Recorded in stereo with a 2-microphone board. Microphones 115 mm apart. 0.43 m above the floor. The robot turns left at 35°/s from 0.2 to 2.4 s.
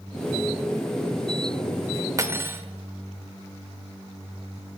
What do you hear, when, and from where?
2.2 s cutlery clinking: 30° right (ahead or behind), 0.6 m; by 2.6 s 25° right (ahead or behind), 0.6 m